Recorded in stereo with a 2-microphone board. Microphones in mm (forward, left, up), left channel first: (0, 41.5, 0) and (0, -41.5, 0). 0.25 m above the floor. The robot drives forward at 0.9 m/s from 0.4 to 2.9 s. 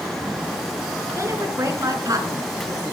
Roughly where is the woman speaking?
Right.